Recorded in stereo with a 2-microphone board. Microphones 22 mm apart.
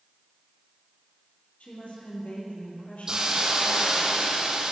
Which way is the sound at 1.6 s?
70° left (ahead or behind).